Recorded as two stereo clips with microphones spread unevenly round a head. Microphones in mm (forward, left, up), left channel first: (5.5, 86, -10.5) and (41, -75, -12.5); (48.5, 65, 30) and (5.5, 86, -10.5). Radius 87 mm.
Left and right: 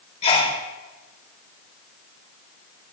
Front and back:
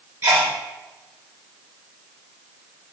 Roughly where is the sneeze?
Behind.